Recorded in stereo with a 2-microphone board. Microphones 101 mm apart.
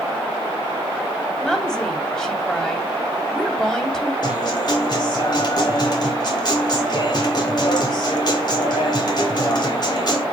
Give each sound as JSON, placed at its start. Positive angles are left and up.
{"t": 1.4, "sound": "a woman speaking", "side_deg": 5, "distance_m": 2.5}
{"t": 4.2, "sound": "a guitar", "side_deg": 45, "distance_m": 2.5}